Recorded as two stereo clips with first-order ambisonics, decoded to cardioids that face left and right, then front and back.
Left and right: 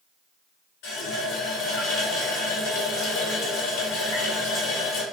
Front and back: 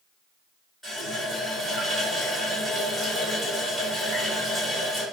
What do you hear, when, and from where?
0.8 s a running tap: 95° left, 1.2 m